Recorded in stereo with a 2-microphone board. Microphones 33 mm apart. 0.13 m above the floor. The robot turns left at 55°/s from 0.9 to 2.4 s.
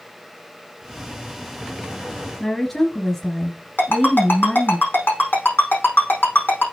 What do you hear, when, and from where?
2.4 s a woman speaking: 15° left (ahead or behind), 2 m
3.8 s a ringtone: 80° left, 5 m